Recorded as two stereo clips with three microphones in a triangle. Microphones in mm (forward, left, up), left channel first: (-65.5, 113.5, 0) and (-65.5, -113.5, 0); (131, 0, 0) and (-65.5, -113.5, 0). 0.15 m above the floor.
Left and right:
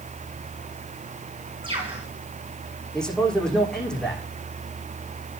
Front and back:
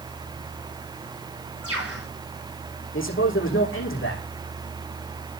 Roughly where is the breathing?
I don't hear breathing.